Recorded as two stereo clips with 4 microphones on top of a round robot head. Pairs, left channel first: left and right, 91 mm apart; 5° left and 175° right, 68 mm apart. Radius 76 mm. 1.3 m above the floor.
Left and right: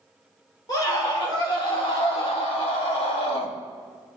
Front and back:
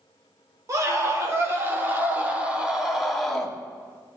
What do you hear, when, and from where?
0.7 s a scream: 145° left, 3.5 m; by 3.5 s 90° left, 2.5 m